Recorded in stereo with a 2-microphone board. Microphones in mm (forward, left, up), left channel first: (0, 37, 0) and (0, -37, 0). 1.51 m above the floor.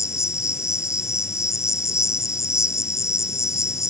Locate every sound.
0.0 s an insect: 45° left (ahead or behind)